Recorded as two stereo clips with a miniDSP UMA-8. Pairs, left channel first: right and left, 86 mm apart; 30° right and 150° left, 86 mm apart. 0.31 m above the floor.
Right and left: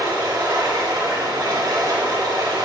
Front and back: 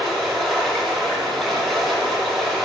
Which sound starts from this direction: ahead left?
Running water, at 0.0 s.